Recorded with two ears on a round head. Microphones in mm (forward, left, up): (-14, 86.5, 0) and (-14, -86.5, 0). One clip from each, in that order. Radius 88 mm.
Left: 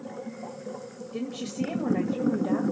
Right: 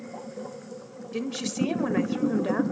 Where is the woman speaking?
45° right (ahead or behind), 1.9 m.